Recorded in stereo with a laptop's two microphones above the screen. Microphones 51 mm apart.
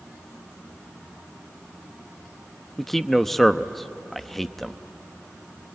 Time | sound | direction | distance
2.8 | a man speaking | 5° left (ahead or behind) | 0.9 m